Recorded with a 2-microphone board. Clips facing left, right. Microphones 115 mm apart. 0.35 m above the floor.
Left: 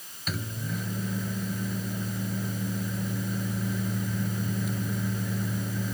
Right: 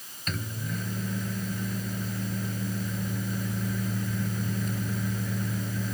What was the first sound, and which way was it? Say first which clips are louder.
A microwave: even; 5° left (ahead or behind).